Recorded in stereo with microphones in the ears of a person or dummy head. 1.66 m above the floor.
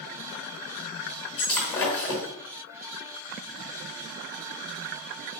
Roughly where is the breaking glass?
Left.